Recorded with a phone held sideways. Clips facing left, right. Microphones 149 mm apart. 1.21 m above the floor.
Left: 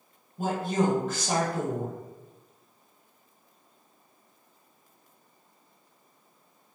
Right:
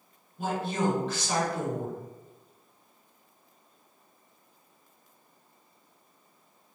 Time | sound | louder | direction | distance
0.4 | a woman speaking | left 3 dB | 45° left (ahead or behind) | 0.8 m